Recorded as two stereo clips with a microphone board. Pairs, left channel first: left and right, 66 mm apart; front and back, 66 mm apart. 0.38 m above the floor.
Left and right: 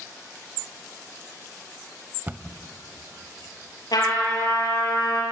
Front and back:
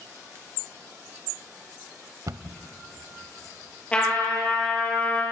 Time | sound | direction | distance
2.3 | a cupboard door | 150° right | 0.7 m
3.9 | a trumpet | 70° left | 6 m